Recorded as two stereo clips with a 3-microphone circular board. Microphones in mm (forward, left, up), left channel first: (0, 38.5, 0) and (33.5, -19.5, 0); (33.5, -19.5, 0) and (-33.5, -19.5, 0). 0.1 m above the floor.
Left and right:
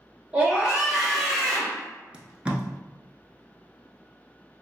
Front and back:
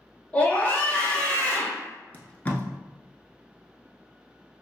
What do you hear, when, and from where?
0.3 s a scream: 25° right, 1.2 m; by 1.8 s 55° left, 1.4 m
2.1 s tape being pulled: 10° right, 0.5 m